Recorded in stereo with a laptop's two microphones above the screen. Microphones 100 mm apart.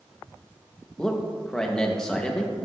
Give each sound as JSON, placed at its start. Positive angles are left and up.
{"t": 1.0, "sound": "a man speaking", "side_deg": 10, "distance_m": 1.0}